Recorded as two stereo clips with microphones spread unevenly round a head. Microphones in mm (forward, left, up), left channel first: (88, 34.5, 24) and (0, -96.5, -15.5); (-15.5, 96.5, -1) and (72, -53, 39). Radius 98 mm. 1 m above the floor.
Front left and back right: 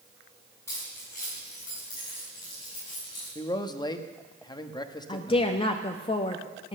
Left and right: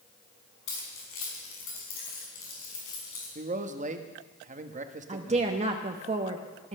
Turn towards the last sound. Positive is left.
turn(degrees=-5)